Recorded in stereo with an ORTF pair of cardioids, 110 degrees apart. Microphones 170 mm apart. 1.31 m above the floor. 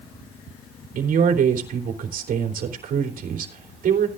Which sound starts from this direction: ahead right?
A man speaking, at 0.9 s.